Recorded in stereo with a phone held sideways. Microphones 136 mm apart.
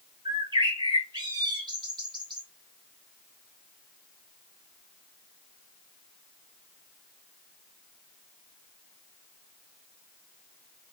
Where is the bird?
30° right (ahead or behind), 1.4 m.